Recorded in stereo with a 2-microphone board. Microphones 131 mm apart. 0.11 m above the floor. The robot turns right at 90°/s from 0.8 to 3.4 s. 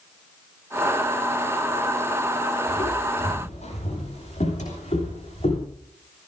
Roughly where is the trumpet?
No trumpet in this recording.